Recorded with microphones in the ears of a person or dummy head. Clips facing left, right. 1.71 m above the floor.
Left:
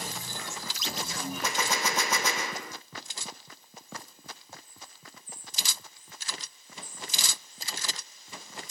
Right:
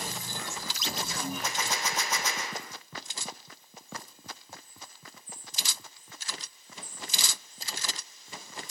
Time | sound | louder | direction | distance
1.4 | a gunshot | left 3 dB | 60° left (ahead or behind) | 0.6 m